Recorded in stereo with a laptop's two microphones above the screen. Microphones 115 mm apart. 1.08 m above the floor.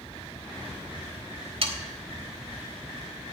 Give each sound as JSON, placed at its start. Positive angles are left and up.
{"t": 1.6, "sound": "sawing", "side_deg": -55, "distance_m": 1.1}